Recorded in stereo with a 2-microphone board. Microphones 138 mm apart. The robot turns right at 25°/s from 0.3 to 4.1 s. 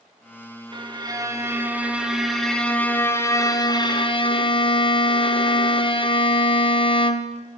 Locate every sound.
0.7 s a violin: 40° right, 0.5 m; by 7.4 s 45° left, 0.5 m